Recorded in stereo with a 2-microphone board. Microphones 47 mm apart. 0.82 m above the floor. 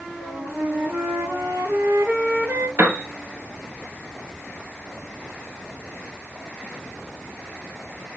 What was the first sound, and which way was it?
A flute, 80° right.